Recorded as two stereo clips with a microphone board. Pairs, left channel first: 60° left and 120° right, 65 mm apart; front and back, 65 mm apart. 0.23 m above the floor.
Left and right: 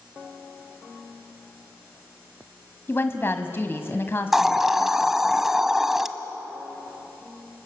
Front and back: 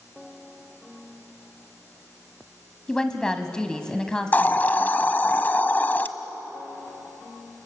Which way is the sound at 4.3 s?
40° right.